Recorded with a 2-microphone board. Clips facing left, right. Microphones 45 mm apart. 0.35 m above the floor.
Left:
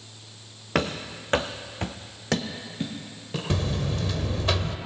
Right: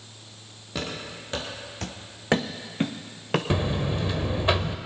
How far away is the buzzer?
About 0.6 m.